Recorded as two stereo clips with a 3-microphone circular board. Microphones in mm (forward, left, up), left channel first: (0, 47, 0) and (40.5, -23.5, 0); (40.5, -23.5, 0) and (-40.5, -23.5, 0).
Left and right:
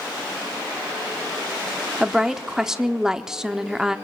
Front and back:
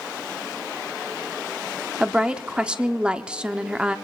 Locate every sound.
2.0 s a woman speaking: 130° right, 0.7 m